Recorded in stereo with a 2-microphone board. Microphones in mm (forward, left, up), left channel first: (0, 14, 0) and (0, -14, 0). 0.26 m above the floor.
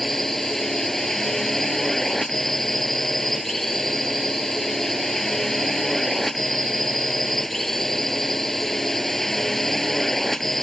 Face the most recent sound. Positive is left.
turn(degrees=10)  # may be behind; listen again after turning